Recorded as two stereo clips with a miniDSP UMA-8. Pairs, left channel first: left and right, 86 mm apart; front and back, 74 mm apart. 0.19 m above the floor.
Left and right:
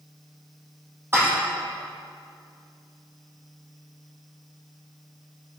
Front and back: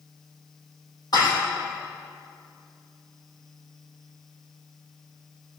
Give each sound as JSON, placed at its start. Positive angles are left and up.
{"t": 1.1, "sound": "dishes clattering", "azimuth_deg": -30, "distance_m": 5.0}